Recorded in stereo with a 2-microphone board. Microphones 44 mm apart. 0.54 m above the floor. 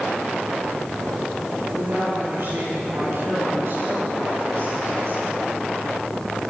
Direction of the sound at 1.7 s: 70° right (ahead or behind).